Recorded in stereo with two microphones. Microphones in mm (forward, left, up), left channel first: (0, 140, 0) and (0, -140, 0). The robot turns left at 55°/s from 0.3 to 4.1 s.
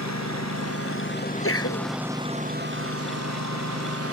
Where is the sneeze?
130° left; by 1.9 s 90° left.